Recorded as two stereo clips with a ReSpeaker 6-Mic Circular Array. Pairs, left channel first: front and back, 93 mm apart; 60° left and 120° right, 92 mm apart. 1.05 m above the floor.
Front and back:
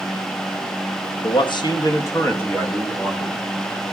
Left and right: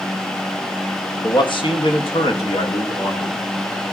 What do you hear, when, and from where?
1.2 s a man speaking: 20° left, 1.3 m; by 3.3 s 85° left, 2.5 m